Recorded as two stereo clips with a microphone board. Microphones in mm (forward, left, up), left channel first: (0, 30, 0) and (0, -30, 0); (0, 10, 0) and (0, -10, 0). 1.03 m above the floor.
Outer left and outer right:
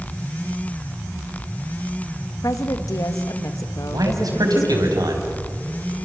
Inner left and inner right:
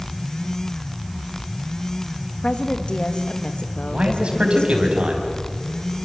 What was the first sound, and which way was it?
A woman speaking, 65° left (ahead or behind).